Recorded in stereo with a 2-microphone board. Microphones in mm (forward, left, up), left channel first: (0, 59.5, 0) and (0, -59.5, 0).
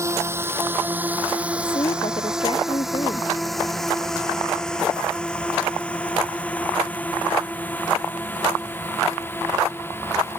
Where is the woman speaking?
50° left (ahead or behind).